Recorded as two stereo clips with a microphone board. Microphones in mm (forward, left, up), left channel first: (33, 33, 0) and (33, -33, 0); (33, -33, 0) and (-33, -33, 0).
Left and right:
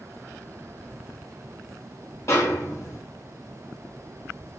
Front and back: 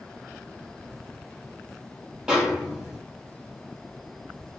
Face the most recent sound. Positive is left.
turn(degrees=100)